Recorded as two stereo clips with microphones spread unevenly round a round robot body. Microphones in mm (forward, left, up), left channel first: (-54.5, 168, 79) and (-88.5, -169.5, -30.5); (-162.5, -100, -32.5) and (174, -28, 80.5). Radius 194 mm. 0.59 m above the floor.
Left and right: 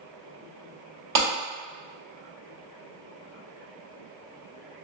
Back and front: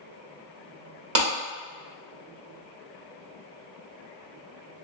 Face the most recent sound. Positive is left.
turn(degrees=-45)